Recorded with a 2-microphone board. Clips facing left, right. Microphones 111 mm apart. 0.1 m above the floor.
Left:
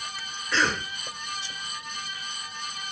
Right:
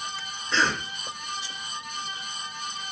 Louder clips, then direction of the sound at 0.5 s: Even; 25° right (ahead or behind).